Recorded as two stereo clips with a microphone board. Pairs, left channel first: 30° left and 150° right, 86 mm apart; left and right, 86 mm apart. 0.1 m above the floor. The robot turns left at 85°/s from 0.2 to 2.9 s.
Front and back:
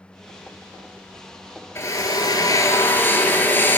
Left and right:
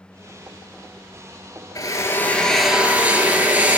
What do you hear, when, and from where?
1.8 s a drill: 75° left, 0.7 m; by 3.8 s 25° right, 0.7 m